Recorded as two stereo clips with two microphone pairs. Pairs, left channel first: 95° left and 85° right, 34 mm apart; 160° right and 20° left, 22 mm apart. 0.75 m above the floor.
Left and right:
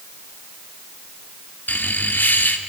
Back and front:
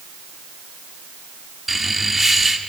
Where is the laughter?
100° left, 2 m.